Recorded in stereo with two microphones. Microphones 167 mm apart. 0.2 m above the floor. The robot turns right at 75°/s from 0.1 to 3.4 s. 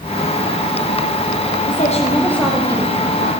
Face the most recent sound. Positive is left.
turn(degrees=-110)